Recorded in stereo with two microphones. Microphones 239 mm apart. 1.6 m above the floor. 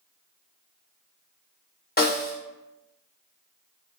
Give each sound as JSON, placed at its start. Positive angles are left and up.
{"t": 2.0, "sound": "a snare drum", "side_deg": 40, "distance_m": 0.9}